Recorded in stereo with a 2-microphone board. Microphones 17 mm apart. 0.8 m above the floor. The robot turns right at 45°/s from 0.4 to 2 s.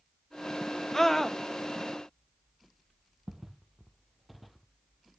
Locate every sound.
0.9 s a scream: 30° left (ahead or behind), 0.7 m; by 1.4 s 20° left (ahead or behind), 0.7 m
3.3 s footsteps: 20° right (ahead or behind), 1.6 m; by 4.7 s 5° left (ahead or behind), 1.7 m